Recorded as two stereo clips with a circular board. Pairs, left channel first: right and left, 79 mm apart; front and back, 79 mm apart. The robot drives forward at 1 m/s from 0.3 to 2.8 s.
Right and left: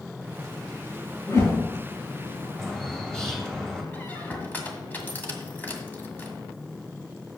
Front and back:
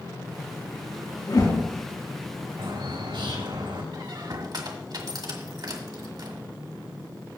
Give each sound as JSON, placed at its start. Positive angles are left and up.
{"t": 1.3, "sound": "a whoosh", "azimuth_deg": -30, "distance_m": 3.5}
{"t": 2.6, "sound": "a bird", "azimuth_deg": -175, "distance_m": 2.5}
{"t": 3.9, "sound": "a squeak", "azimuth_deg": -155, "distance_m": 1.7}